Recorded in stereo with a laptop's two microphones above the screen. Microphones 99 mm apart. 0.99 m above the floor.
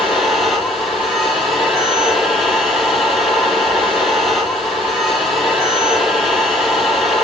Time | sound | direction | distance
0.0 | a machine running | centre (ahead or behind) | 8 m